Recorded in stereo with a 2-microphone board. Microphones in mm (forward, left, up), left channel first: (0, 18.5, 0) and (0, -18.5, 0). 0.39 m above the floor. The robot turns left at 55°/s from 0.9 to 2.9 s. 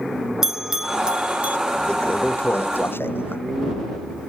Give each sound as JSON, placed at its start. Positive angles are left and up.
{"t": 0.4, "sound": "a bell", "side_deg": -10}
{"t": 1.9, "sound": "a toilet flushing", "azimuth_deg": 155}